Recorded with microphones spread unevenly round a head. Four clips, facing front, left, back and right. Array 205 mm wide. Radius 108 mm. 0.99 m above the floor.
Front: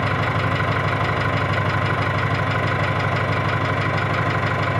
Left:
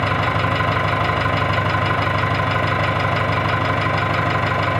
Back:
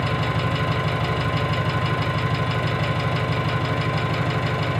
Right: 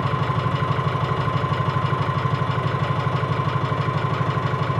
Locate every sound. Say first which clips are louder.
0.0 s an engine running: left 4 dB, front 2 dB; 65° left, 2 m